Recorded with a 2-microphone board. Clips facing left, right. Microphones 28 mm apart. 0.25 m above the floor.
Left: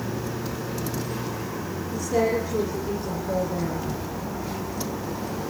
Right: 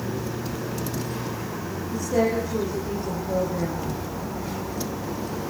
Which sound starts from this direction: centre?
A woman speaking, at 1.9 s.